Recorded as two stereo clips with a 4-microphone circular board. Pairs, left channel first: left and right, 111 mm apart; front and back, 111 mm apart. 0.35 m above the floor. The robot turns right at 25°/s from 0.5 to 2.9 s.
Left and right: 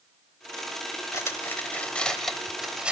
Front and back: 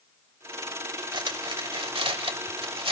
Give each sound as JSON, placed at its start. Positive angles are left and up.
{"t": 1.1, "sound": "cutlery clinking", "azimuth_deg": 150, "distance_m": 0.9}